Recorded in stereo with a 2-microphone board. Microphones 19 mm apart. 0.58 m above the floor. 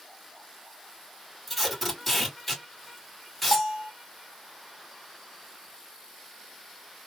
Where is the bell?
Centre (ahead or behind), 2 m.